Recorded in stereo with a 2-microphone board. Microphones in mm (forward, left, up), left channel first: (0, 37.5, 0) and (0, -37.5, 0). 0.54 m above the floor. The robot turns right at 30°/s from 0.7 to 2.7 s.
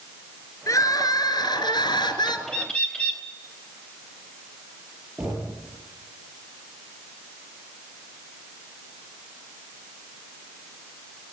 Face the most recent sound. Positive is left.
turn(degrees=-20)  # may be behind; listen again after turning